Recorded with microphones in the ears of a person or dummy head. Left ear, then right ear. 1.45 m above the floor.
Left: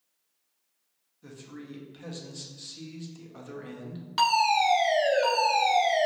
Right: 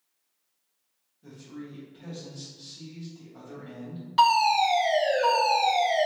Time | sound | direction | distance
1.2 | a man speaking | 50° left (ahead or behind) | 0.7 m
4.2 | a fire alarm | 20° left (ahead or behind) | 1.4 m